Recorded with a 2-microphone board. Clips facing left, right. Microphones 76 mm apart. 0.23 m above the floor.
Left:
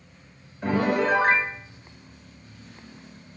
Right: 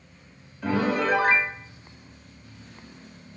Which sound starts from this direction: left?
A piano, at 0.6 s.